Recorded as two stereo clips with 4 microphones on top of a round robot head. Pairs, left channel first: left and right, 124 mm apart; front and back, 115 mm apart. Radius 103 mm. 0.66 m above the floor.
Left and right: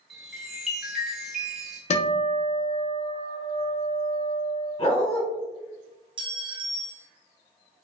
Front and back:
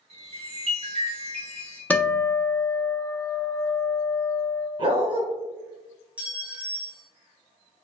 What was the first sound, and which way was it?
A chime, straight behind.